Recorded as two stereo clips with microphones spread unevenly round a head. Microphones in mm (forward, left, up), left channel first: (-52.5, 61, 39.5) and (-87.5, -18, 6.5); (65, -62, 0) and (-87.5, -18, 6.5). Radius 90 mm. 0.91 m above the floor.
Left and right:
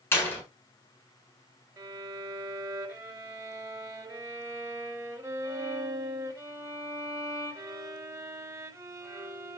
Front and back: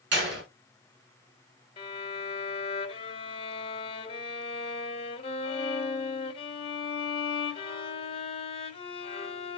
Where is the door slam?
130° left, 7.5 m.